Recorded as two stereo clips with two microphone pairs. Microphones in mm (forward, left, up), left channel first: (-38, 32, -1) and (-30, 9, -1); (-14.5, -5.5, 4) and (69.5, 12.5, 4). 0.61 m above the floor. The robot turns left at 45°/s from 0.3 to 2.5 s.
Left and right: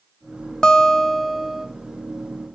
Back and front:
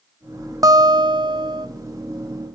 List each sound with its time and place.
0.6 s a guitar: 50° left, 0.9 m; by 1.7 s 5° left, 0.9 m